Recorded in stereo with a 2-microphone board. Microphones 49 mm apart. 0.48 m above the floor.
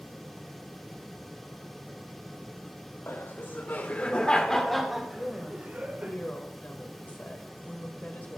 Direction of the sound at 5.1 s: 35° left (ahead or behind).